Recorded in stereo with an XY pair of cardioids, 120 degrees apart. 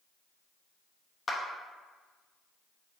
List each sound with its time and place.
1.3 s a clap: 20° left, 0.7 m